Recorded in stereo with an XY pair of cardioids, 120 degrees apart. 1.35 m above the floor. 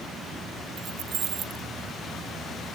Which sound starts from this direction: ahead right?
Keys jangling, at 0.8 s.